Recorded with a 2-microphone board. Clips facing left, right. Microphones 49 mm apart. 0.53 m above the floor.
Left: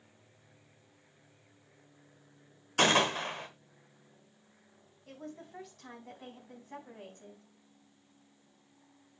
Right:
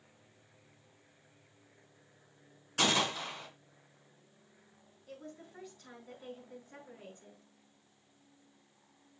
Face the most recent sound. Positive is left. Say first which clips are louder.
# left 3 dB
turn(degrees=75)  # may be behind; listen again after turning